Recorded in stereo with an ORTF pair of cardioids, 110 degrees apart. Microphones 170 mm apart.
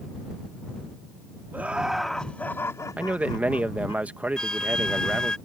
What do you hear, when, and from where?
1.5 s laughter: 10° right; by 4.0 s 35° left
3.0 s a man speaking: 10° right
4.4 s a flute: 5° left